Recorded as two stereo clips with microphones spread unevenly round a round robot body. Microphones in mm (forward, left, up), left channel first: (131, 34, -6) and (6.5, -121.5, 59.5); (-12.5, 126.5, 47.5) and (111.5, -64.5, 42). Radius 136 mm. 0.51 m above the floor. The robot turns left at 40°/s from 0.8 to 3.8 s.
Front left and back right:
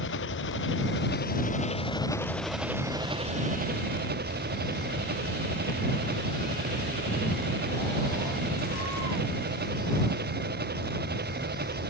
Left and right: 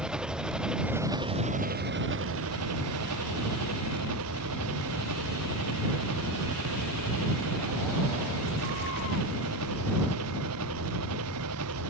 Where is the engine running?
30° left; by 11.9 s 90° right.